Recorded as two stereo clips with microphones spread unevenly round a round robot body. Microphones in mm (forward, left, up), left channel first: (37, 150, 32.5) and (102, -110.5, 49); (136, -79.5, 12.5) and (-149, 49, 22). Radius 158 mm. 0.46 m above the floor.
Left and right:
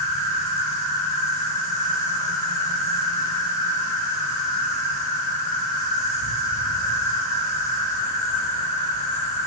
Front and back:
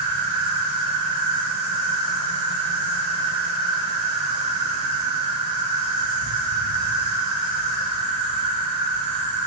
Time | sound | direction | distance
0.0 | an insect | straight behind | 1.2 m